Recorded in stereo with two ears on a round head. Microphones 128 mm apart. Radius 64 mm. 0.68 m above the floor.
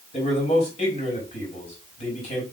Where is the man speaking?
45° left (ahead or behind), 4.5 m.